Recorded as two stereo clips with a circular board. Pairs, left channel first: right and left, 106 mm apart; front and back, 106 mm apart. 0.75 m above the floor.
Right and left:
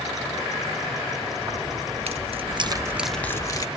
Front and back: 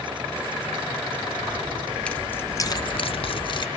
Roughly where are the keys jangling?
Left.